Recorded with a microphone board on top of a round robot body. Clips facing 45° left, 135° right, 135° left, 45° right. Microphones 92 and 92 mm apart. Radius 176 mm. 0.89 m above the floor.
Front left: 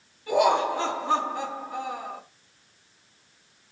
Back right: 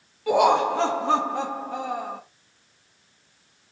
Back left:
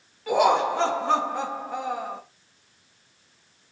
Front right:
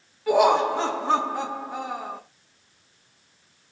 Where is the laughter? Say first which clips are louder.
Back right 3 dB, front right 2 dB; 130° right, 2.0 m.